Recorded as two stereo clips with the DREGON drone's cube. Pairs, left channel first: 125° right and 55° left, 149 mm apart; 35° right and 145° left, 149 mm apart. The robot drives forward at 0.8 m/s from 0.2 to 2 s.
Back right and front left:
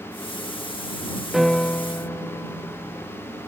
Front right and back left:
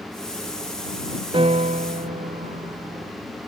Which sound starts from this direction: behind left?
A piano, at 1.3 s.